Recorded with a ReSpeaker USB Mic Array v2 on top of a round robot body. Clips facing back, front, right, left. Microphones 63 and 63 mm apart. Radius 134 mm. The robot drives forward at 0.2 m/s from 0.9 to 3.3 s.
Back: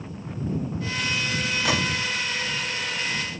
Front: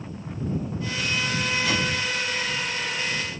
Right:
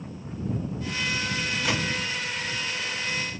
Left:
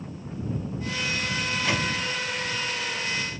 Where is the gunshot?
170° right, 3 m.